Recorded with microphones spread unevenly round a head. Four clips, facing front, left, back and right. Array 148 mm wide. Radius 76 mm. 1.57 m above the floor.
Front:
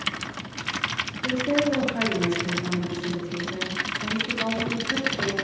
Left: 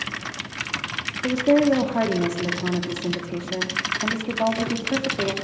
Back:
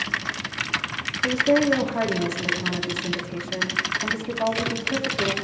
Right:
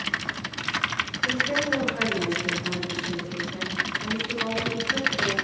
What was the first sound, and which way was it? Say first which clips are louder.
A woman speaking: left 10 dB, back 4 dB; 100° left.